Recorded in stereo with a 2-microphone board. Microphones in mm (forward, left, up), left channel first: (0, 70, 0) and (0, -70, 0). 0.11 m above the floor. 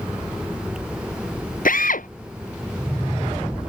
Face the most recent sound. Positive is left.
turn(degrees=75)  # may be behind; listen again after turning